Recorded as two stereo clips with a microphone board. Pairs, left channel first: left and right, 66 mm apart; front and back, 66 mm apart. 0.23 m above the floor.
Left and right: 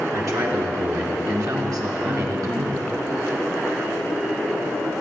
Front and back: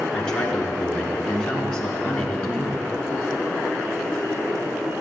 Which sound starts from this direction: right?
A man speaking, at 0.1 s.